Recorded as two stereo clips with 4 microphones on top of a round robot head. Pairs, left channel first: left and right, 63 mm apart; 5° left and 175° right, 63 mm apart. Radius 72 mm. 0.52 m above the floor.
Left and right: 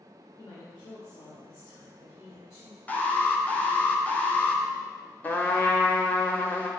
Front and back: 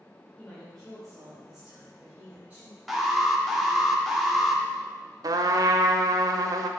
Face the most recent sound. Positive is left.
turn(degrees=160)